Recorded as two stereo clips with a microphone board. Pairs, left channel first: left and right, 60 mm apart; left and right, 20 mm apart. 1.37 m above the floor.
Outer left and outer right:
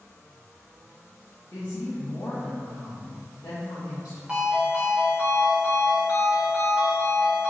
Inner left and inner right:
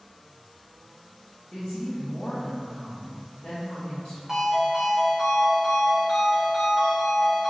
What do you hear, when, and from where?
1.5 s a woman speaking: 85° left, 0.7 m
4.3 s a ringtone: 20° right (ahead or behind), 0.8 m